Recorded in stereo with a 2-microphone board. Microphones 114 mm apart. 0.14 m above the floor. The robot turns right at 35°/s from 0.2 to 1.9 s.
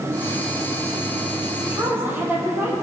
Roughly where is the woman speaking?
Right.